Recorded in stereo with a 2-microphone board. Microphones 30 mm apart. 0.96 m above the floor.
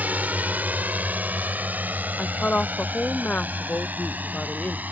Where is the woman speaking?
55° left (ahead or behind).